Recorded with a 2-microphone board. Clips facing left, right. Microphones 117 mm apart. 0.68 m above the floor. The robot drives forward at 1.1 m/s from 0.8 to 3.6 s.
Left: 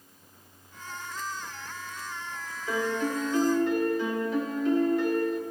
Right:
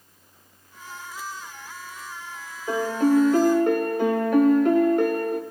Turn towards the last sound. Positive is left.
turn(degrees=-60)  # may be behind; listen again after turning